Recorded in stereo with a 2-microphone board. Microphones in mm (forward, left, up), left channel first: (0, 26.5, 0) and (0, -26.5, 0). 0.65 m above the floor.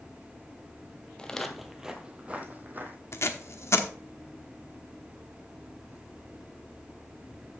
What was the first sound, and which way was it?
Footsteps, 15° left (ahead or behind).